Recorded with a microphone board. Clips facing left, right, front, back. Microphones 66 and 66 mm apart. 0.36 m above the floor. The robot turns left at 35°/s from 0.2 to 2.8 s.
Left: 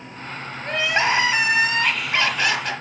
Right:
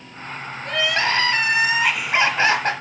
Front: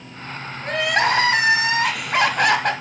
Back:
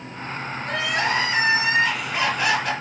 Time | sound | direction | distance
0.6 | crying | 35° left | 2 m